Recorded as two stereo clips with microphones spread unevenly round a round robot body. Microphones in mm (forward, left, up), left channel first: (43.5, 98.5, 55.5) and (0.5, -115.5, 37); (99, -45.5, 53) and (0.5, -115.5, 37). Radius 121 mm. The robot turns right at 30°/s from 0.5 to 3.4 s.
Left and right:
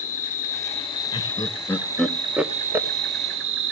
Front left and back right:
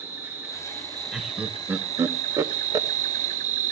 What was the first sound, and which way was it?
An insect, 135° left.